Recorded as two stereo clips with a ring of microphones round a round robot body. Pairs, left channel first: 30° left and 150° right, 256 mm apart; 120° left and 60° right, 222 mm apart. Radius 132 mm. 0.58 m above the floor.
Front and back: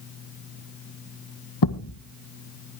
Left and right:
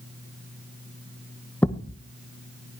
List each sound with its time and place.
1.6 s a thud: 35° left, 1.1 m